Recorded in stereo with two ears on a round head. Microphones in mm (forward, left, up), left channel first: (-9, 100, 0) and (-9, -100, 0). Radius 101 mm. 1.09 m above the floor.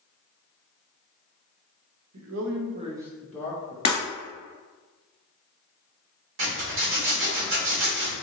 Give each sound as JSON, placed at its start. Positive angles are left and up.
{"t": 2.1, "sound": "a man speaking", "side_deg": -75, "distance_m": 0.7}
{"t": 3.9, "sound": "breaking glass", "side_deg": 30, "distance_m": 1.3}
{"t": 6.4, "sound": "a zipper", "side_deg": -60, "distance_m": 1.7}